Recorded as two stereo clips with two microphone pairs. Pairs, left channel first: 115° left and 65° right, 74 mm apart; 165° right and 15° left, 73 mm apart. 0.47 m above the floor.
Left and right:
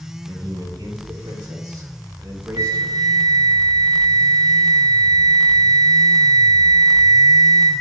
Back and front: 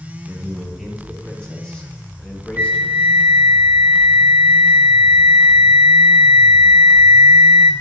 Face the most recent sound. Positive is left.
turn(degrees=-55)